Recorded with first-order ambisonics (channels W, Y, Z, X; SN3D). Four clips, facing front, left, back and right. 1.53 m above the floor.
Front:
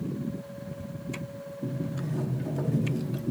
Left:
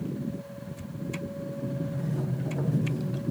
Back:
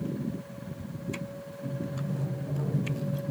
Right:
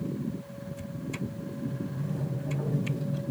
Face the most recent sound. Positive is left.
turn(degrees=40)